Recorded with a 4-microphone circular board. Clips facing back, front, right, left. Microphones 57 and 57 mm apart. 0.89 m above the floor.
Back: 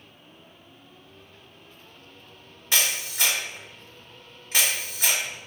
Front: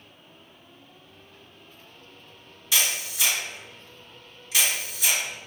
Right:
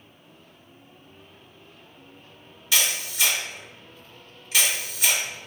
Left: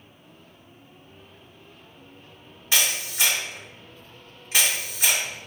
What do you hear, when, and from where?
2.7 s a camera shutter: 140° left, 2.0 m